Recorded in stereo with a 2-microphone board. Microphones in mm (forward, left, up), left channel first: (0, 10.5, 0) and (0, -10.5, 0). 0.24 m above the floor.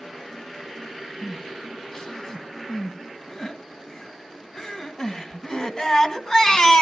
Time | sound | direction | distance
1.2 | crying | 25° left (ahead or behind) | 2.0 m